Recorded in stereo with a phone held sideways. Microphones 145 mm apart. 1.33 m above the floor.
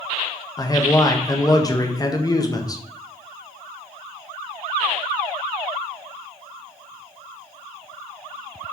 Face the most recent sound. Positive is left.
turn(degrees=25)  # may be behind; listen again after turning